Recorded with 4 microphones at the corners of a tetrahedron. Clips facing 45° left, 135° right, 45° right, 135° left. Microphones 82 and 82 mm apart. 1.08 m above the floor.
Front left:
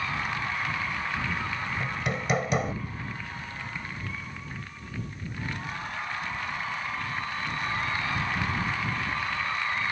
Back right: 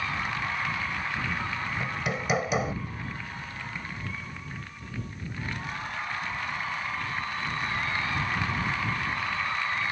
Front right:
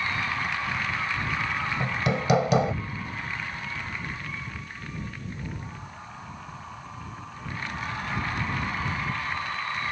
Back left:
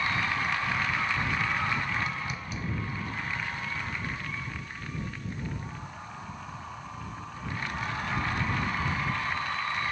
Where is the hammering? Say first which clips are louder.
Even, front right 5 dB; 50° right.